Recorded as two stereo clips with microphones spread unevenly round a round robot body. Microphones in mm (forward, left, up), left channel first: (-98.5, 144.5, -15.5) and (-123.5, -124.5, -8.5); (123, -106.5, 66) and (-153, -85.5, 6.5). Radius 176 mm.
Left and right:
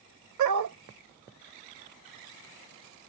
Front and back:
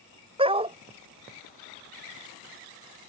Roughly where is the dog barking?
Right.